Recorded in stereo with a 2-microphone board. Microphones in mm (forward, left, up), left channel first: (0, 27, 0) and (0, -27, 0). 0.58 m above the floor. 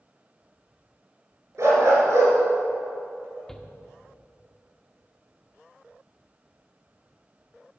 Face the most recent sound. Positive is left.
turn(degrees=10)  # may be behind; listen again after turning